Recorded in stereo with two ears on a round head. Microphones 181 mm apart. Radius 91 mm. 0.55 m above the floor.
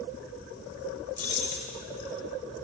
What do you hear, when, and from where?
1.2 s keys jangling: 45° left (ahead or behind), 1.4 m